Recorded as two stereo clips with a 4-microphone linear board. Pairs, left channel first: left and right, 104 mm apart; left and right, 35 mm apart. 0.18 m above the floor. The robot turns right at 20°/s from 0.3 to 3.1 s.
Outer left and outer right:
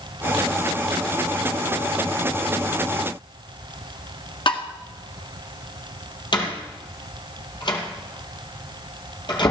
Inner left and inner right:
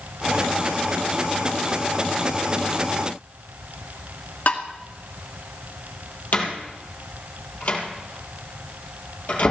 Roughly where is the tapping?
Left.